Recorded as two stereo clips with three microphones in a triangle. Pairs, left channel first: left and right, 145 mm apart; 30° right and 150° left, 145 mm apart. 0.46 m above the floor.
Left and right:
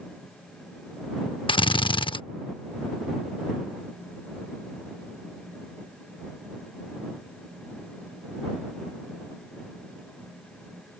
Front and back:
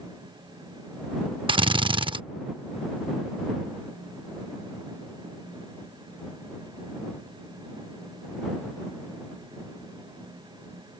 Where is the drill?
120° left.